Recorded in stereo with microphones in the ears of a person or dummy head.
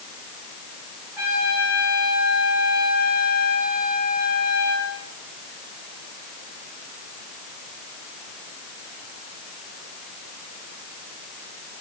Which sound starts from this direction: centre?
A trumpet, at 1.2 s.